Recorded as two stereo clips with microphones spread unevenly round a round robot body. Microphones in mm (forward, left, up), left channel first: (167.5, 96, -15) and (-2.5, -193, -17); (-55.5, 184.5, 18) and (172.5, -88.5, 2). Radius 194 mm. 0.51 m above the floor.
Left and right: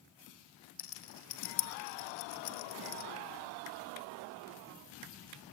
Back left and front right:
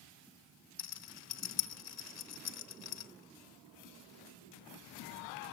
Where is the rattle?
80° left, 1.1 m.